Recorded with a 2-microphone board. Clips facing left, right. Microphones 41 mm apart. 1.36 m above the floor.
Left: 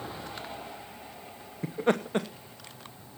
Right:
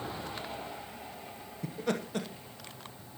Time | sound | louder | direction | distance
1.6 | laughter | left 7 dB | 35° left (ahead or behind) | 0.9 m